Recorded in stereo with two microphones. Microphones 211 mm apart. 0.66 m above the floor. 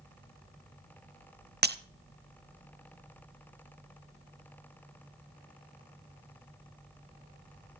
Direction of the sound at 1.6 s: 50° right (ahead or behind).